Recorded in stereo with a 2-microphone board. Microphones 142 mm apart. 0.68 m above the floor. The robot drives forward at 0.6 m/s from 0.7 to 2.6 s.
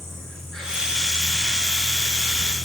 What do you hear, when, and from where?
0.0 s an insect: 5° left (ahead or behind), 3.5 m; by 2.6 s centre (ahead or behind), 4.5 m